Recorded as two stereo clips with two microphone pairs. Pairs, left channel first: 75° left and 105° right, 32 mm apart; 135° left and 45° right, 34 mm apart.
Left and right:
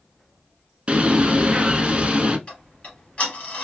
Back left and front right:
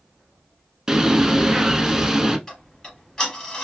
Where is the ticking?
75° left, 1.7 m.